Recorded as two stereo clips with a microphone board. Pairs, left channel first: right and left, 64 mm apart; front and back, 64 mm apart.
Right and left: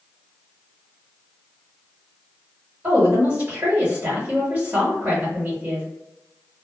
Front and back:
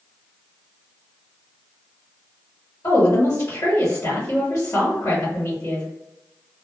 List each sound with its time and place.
2.8 s a woman speaking: 35° left, 1.5 m